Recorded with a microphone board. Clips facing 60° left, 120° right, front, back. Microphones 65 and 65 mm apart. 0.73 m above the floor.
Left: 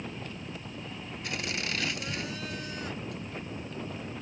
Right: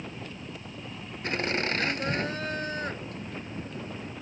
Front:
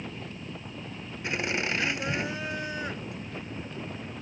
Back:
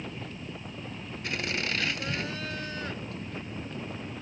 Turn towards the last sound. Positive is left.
turn(degrees=-75)